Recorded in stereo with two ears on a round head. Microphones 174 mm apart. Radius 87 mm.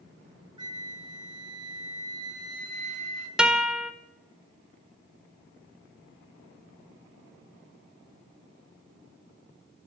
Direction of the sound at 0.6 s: 25° right (ahead or behind).